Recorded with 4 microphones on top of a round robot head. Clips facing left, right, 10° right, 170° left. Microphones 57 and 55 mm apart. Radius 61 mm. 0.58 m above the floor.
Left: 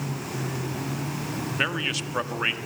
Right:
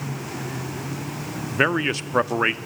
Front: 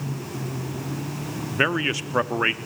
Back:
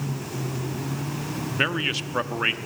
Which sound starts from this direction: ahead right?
A man speaking, at 1.5 s.